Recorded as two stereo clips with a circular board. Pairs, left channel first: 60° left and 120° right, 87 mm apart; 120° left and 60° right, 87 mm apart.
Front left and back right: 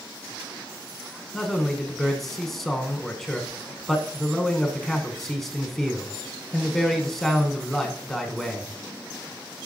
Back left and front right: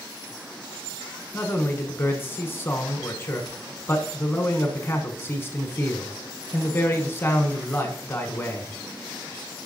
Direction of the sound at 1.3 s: 145° left.